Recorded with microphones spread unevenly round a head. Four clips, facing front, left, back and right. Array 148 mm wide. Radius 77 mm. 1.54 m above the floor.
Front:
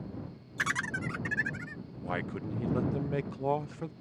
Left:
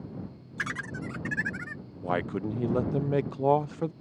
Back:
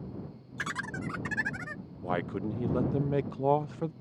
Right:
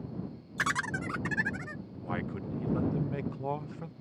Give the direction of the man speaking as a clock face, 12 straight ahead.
8 o'clock.